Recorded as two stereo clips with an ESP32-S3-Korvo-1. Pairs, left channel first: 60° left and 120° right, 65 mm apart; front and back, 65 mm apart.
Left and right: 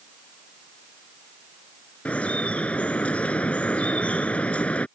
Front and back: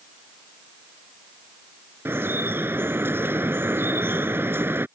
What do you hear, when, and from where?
2.0 s dripping: 130° left